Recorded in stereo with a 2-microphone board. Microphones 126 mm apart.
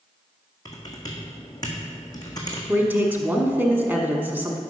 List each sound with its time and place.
0.7 s typing on a keyboard: 30° left (ahead or behind), 1.6 m
2.7 s a man speaking: 15° right (ahead or behind), 1.0 m